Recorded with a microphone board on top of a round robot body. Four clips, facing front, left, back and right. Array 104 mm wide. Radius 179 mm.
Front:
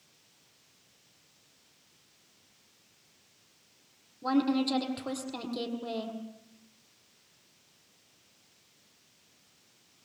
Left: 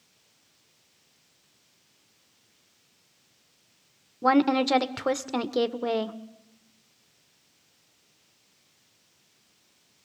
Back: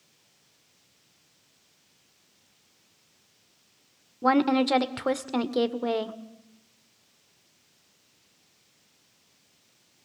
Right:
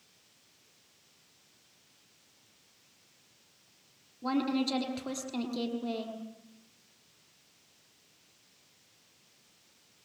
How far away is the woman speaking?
About 1.6 m.